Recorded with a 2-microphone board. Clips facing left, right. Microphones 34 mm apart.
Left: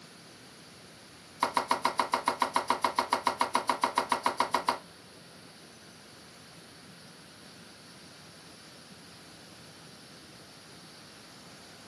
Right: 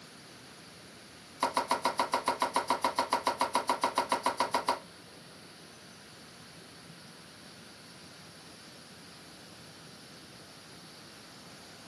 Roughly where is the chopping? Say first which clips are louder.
Left 1 dB; centre.